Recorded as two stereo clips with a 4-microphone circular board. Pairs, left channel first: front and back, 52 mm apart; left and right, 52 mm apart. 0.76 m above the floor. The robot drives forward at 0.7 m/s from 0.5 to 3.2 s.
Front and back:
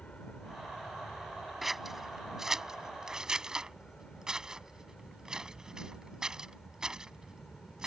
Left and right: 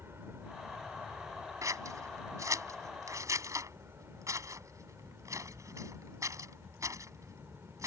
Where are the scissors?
90° right; by 7.9 s 100° right.